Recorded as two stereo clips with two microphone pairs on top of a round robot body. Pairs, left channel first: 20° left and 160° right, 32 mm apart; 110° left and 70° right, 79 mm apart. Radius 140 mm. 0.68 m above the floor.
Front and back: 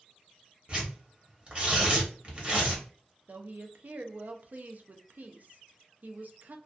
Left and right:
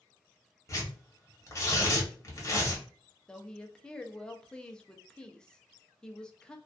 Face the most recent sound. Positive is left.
turn(degrees=-175)